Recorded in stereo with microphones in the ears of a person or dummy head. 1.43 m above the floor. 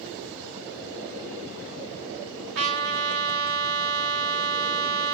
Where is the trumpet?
75° right (ahead or behind), 1.3 m.